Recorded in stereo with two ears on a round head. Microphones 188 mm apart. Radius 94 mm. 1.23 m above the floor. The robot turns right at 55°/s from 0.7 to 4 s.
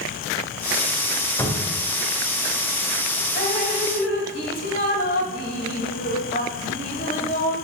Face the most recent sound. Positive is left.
turn(degrees=110)